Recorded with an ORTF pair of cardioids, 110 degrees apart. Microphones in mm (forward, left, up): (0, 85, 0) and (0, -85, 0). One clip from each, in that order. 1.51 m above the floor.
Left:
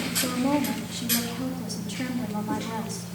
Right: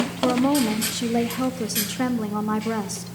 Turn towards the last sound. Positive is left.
turn(degrees=-55)